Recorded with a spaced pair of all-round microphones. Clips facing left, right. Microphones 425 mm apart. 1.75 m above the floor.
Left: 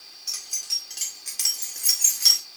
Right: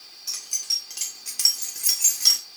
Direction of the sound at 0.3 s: 10° right (ahead or behind).